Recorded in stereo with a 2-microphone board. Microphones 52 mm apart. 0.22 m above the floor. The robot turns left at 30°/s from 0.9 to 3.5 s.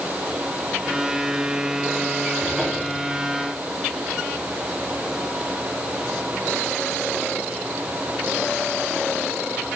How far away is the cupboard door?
About 8 m.